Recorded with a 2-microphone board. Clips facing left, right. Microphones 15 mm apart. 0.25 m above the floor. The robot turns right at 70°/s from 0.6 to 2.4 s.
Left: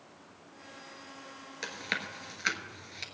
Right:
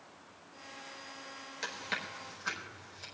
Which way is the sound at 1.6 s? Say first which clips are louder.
Left 3 dB; 5° left (ahead or behind).